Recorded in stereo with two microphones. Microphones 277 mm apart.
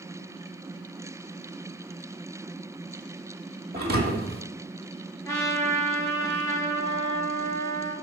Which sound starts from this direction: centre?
A trumpet, at 5.2 s.